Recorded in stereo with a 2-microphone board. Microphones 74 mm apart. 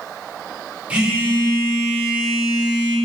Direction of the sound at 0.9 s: 15° right (ahead or behind).